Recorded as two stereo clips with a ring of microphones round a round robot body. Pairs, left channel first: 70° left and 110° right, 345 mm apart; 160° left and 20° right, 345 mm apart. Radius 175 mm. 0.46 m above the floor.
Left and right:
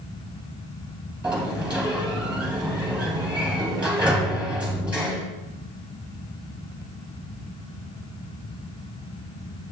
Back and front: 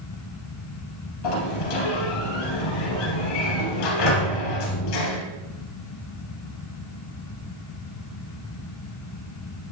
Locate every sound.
1.2 s a sliding door: 160° left, 3 m